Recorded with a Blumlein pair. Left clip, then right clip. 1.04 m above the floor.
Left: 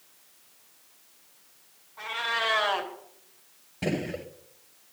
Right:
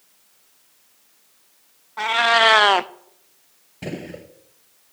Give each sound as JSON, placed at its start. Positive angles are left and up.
{"t": 2.0, "sound": "a cat meowing", "azimuth_deg": -55, "distance_m": 0.6}
{"t": 3.8, "sound": "a gunshot", "azimuth_deg": 10, "distance_m": 1.5}